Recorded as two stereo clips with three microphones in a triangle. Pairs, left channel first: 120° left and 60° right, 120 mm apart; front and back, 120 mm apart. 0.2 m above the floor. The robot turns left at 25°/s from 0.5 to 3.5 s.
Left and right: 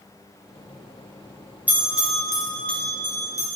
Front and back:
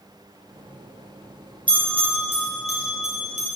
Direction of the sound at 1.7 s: 135° right.